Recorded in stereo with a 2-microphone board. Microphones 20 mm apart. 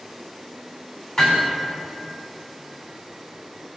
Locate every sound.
1.2 s hammering: 45° left (ahead or behind), 4.5 m